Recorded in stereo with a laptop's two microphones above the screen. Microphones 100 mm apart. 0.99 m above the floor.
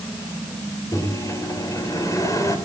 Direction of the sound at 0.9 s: 30° left (ahead or behind).